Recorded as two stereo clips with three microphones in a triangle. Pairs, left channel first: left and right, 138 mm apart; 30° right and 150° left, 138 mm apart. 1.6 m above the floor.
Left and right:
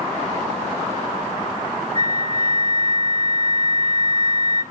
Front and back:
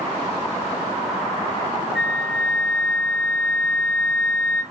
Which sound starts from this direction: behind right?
A flute, at 1.9 s.